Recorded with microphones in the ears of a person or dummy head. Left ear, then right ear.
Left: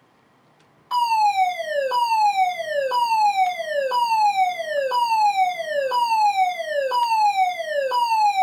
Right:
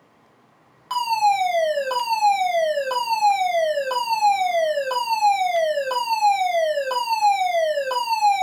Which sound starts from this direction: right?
A fire alarm, at 0.9 s.